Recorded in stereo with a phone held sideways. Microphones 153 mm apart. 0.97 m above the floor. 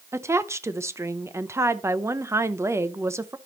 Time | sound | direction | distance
0.1 | a woman speaking | 20° right (ahead or behind) | 0.7 m